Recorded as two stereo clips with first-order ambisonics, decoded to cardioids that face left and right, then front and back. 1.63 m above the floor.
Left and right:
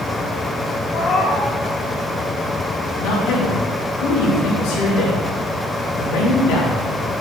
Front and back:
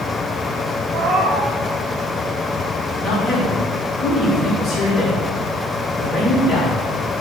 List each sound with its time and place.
0.9 s a cat meowing: 135° left, 1.2 m
3.0 s a man speaking: 90° left, 3 m